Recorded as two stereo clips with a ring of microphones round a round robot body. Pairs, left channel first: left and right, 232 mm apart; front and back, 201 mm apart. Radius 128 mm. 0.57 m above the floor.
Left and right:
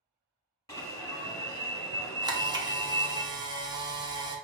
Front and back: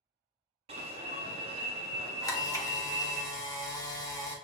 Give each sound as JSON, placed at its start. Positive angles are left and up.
{"t": 0.7, "sound": "an alarm", "azimuth_deg": 155, "distance_m": 1.3}
{"t": 2.2, "sound": "a camera shutter", "azimuth_deg": -45, "distance_m": 1.0}